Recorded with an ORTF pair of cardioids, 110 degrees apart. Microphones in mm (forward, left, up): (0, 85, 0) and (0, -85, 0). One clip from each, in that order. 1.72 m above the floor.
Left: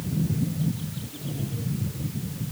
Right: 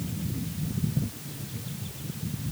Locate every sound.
Only background noise.